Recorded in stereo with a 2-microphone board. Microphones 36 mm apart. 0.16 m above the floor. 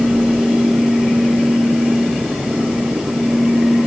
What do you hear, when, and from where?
Only background noise.